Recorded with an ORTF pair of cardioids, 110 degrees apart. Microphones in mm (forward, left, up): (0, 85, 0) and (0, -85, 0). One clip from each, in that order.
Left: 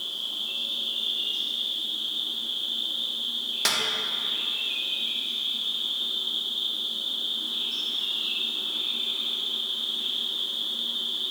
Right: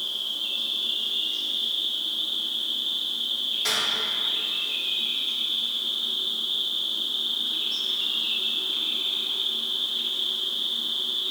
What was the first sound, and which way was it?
An insect, 20° right.